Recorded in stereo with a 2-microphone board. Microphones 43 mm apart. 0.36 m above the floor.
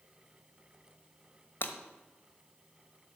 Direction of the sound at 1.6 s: 55° left (ahead or behind).